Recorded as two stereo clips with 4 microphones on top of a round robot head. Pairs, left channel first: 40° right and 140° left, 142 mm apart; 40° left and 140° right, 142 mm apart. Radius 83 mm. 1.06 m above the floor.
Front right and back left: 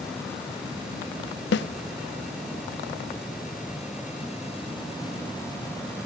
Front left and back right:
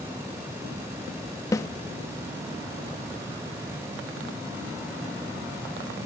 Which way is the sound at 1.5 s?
30° right.